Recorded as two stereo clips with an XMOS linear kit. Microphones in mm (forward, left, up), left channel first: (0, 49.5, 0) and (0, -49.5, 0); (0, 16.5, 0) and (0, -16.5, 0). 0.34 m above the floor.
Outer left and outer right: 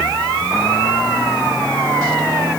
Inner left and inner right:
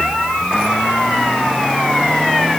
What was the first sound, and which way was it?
Only background noise.